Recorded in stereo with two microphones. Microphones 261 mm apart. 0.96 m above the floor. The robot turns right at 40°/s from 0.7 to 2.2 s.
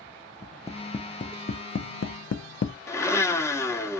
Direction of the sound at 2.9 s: 10° left (ahead or behind).